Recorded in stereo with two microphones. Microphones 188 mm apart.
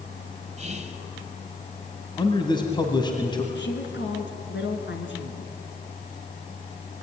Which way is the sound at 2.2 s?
25° left (ahead or behind).